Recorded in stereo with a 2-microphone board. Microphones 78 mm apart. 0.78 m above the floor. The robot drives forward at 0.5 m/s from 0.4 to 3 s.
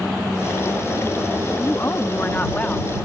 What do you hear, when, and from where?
1.6 s a woman speaking: 35° left (ahead or behind); by 3.1 s 20° left (ahead or behind)